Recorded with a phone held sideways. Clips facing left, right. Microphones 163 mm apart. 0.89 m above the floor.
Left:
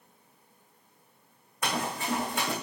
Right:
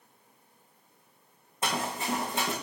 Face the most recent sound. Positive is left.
turn(degrees=-25)  # may be behind; listen again after turning